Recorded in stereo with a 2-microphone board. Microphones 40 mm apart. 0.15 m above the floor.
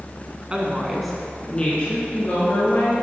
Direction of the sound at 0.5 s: 25° right (ahead or behind).